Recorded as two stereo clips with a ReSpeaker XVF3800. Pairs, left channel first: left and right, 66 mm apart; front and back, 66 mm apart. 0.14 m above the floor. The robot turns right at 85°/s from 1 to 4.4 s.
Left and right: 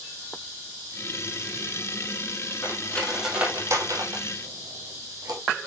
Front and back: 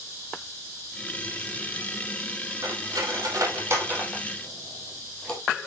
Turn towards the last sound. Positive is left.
turn(degrees=-75)